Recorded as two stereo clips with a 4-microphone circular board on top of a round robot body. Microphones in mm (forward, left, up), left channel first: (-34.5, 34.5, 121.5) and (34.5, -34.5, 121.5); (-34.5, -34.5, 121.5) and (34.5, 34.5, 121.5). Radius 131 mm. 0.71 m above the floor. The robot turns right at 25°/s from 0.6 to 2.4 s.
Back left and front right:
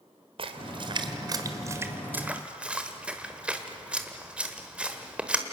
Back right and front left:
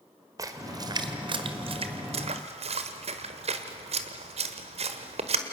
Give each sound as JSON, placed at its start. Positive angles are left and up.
{"t": 0.4, "sound": "a splash", "azimuth_deg": -10, "distance_m": 1.3}